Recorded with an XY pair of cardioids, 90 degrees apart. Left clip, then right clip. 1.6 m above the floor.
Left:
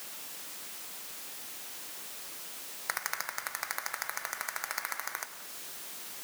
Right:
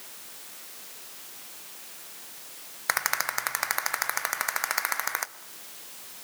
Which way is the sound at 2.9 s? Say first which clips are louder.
Right 8 dB; 65° right.